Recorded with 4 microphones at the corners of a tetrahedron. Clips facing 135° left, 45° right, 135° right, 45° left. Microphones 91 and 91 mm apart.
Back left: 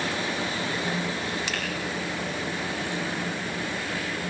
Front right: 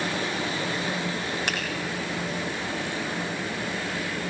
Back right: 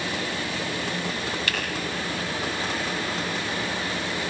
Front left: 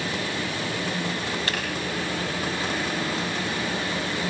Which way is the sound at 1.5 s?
10° right.